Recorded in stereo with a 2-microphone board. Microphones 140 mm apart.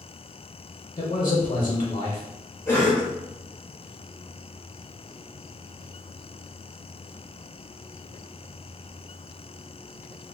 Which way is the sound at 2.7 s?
15° left (ahead or behind).